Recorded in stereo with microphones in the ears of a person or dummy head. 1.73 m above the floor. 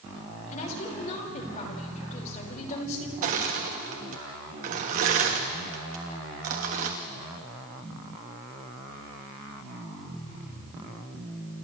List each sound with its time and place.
0.5 s a woman speaking: 45° left (ahead or behind), 5.5 m
3.2 s crushing: 45° right (ahead or behind), 1.5 m